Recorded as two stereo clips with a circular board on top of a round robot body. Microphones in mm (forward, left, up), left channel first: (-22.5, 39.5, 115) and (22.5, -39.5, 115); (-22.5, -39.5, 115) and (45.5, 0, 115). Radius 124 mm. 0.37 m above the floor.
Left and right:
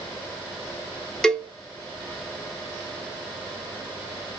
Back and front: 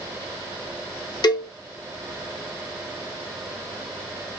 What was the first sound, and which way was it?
A cowbell, 160° right.